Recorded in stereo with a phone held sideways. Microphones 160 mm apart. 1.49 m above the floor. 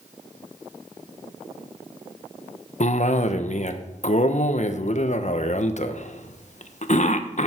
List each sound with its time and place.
2.8 s a cough: 50° left (ahead or behind), 1.2 m